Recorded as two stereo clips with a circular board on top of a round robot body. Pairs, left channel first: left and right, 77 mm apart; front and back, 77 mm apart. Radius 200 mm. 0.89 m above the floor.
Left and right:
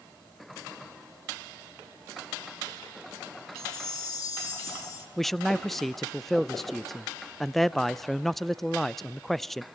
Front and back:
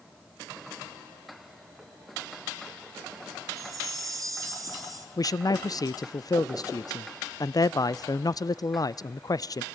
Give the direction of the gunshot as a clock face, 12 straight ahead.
No gunshot in this recording.